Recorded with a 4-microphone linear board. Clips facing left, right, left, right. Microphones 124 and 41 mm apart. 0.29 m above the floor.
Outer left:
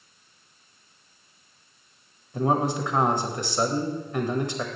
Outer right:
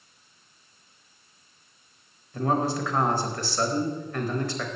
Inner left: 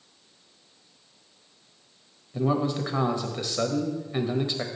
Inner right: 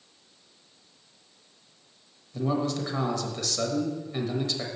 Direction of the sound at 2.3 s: 20° left (ahead or behind).